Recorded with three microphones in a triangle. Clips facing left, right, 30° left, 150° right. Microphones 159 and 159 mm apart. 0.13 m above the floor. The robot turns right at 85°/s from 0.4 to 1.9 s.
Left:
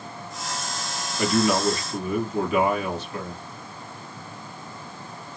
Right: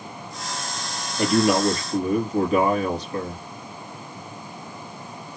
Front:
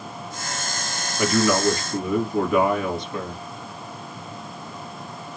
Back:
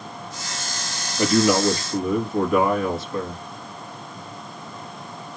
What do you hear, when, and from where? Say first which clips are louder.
1.2 s a man speaking: right 3 dB, back 2 dB; 125° right, 1.7 m; by 3.4 s 65° right, 1.7 m